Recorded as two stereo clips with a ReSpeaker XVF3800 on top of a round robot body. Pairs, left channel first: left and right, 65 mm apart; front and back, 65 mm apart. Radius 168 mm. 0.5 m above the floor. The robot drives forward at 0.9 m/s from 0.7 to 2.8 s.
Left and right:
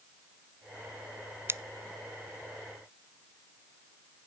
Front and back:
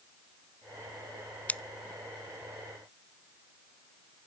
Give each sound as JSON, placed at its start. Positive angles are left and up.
{"t": 1.5, "sound": "scissors", "azimuth_deg": -55, "distance_m": 0.5}